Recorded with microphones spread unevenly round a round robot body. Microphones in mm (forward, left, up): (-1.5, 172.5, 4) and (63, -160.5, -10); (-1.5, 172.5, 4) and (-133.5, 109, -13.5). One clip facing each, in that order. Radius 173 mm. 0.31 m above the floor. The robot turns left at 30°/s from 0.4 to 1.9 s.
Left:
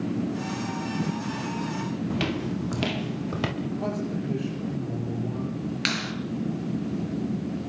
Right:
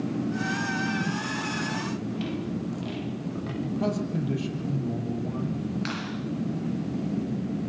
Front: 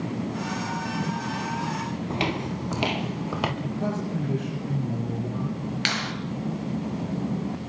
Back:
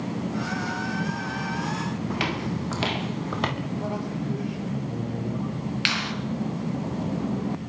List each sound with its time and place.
2.1 s footsteps: 90° left, 4.5 m; by 3.5 s 105° left, 6 m
3.6 s a man speaking: 30° right, 7.5 m
5.8 s a clap: 70° left, 5 m